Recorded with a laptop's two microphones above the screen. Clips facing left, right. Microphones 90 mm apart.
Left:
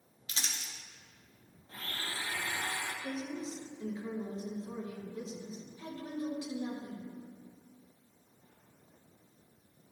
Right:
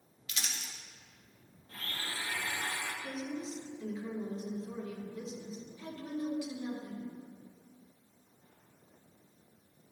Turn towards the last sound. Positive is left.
turn(degrees=30)  # may be behind; listen again after turning